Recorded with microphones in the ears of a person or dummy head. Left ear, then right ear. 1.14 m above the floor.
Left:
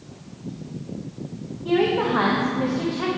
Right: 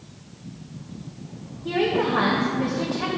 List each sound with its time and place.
1.6 s a woman speaking: 10° left (ahead or behind), 0.8 m